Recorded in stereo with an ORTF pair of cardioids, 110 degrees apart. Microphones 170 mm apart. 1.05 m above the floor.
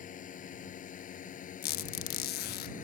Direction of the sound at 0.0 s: 50° left.